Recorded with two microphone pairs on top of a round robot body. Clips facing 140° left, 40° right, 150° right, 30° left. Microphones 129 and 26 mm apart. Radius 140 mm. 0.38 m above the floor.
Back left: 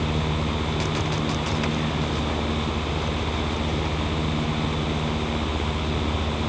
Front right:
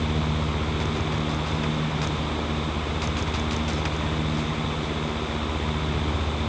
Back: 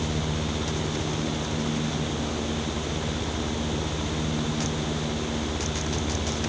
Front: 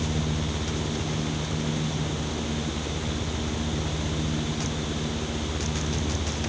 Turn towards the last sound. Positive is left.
No sound to turn to.